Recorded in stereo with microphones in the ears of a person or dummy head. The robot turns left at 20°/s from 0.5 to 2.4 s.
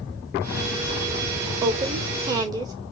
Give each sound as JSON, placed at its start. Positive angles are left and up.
{"t": 1.6, "sound": "a woman speaking", "side_deg": -30, "distance_m": 0.8}